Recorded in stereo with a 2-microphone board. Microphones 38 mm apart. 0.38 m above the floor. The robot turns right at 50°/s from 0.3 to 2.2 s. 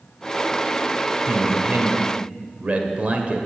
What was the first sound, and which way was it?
A man speaking, 110° right.